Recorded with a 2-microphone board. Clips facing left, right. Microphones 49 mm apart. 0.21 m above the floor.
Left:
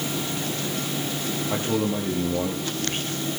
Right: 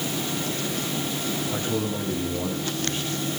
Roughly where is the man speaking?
Left.